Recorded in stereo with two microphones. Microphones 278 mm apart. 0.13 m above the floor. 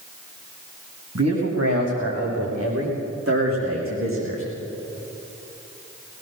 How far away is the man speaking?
About 7.5 m.